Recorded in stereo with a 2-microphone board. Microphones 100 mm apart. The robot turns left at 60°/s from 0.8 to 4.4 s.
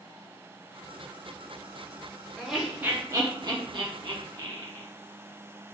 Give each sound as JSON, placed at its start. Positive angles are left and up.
{"t": 2.4, "sound": "laughter", "side_deg": 0, "distance_m": 0.6}